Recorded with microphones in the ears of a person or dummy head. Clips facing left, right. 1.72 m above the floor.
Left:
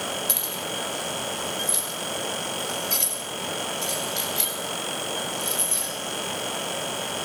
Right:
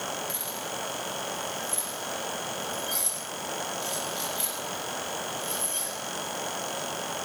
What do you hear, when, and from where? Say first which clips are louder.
0.3 s keys jangling: left 4 dB; 70° left (ahead or behind), 7 m; by 5.9 s 30° left (ahead or behind), 8.5 m